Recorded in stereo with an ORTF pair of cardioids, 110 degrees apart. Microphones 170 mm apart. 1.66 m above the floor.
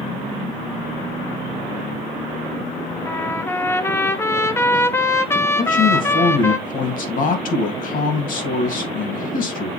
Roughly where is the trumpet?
Ahead.